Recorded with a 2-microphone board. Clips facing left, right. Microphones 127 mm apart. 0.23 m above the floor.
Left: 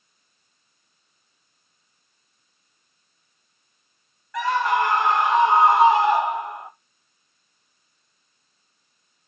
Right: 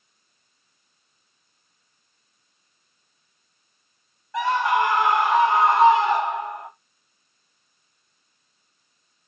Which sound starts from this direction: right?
A scream, at 4.3 s.